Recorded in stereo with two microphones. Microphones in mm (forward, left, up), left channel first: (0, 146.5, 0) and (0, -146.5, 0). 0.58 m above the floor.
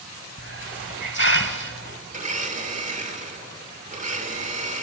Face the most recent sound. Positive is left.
turn(degrees=-25)  # may be behind; listen again after turning